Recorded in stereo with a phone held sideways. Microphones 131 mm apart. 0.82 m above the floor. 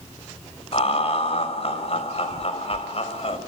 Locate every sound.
0.7 s laughter: 50° left (ahead or behind), 4 m